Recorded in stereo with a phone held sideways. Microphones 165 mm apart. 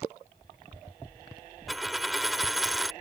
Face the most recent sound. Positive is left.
turn(degrees=0)  # may be behind; listen again after turning